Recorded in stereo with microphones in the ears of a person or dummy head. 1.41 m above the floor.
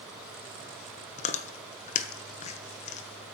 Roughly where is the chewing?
Left.